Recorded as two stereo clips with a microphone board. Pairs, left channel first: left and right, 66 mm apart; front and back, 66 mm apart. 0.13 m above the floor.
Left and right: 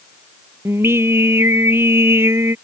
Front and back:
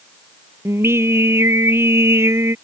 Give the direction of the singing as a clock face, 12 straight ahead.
5 o'clock.